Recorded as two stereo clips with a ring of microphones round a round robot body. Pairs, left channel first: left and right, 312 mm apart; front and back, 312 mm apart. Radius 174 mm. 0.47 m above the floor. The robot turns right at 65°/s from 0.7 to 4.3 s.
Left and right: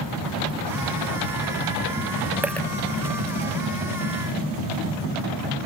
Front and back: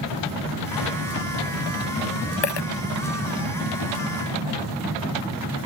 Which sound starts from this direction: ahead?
A dropped coin, at 2.4 s.